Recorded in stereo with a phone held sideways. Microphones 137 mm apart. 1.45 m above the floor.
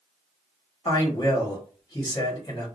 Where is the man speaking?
30° left (ahead or behind), 1.4 m.